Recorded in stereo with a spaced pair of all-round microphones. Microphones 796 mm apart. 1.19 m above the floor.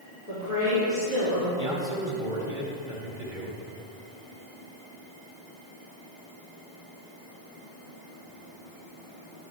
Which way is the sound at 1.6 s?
75° right (ahead or behind).